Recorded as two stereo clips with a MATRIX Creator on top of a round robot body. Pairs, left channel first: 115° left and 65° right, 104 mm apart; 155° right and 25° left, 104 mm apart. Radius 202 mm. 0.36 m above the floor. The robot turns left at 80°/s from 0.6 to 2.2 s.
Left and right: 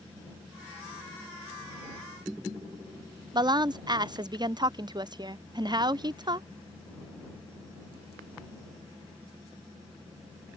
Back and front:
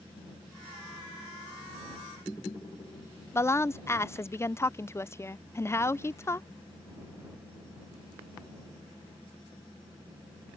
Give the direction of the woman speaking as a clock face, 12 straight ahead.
3 o'clock.